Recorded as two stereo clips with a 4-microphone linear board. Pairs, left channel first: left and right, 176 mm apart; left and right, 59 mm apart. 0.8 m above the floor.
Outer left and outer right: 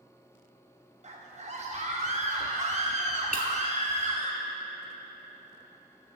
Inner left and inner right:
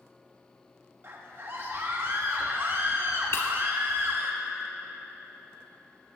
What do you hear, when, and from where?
1.0 s a scream: 45° right (ahead or behind), 0.8 m
3.3 s breaking glass: 55° left (ahead or behind), 1.0 m